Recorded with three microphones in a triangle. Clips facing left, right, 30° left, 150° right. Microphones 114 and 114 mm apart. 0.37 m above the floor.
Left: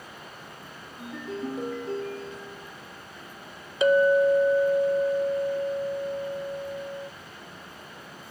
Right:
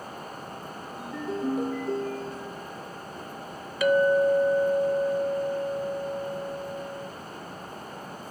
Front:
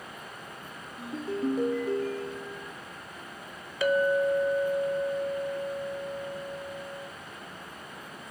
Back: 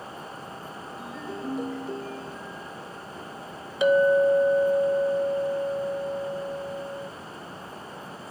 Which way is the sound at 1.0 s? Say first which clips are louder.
Right 3 dB, front 6 dB; 5° right.